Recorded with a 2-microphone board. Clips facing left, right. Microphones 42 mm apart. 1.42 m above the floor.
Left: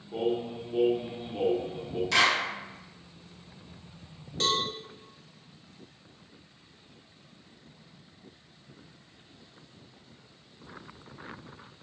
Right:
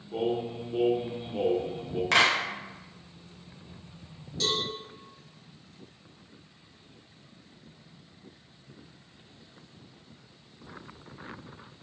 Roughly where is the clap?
Right.